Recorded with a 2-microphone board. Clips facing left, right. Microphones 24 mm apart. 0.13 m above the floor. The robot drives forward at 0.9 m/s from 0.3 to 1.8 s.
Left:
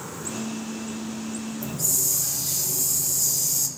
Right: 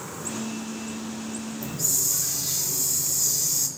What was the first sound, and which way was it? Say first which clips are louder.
A hiss: even; 25° right (ahead or behind).